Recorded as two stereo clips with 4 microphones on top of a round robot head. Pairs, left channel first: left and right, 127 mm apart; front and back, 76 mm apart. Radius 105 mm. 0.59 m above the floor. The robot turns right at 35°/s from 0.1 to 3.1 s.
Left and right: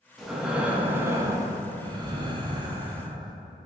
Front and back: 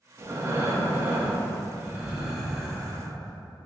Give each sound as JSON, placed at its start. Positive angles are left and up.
{"t": 0.2, "sound": "breathing", "azimuth_deg": 180, "distance_m": 0.5}